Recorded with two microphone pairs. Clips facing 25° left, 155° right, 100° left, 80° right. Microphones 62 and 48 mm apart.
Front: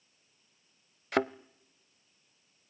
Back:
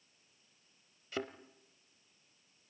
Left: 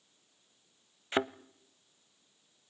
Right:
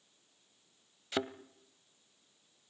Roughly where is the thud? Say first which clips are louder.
Front 11 dB, left 4 dB; ahead left.